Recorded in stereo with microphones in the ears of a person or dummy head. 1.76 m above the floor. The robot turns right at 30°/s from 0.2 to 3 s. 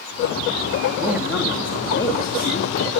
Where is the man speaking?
10° right, 3 m; by 2.7 s 40° left, 3 m.